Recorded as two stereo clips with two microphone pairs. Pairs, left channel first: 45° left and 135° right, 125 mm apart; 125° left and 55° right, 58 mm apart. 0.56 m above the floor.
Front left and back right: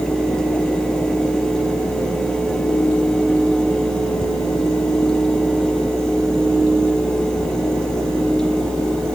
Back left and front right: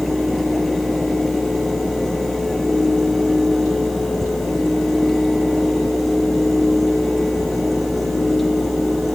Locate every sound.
Only background noise.